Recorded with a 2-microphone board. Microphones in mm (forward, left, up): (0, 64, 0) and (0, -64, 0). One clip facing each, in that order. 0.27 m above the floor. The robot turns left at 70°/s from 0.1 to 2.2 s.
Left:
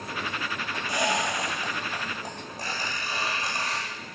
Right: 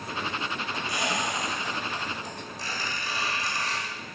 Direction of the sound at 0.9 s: 35° left (ahead or behind).